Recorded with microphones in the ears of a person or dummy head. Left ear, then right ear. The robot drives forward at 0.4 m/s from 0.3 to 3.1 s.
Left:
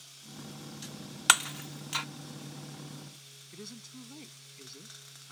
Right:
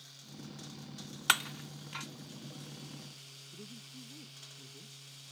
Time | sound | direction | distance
1.3 | breaking glass | 15° left (ahead or behind) | ?
3.5 | a woman speaking | 60° left (ahead or behind) | ?